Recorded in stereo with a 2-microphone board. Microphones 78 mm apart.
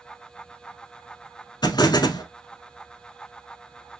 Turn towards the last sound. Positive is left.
turn(degrees=65)  # may be behind; listen again after turning